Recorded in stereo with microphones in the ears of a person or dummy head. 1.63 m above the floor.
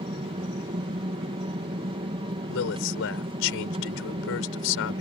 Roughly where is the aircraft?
Right.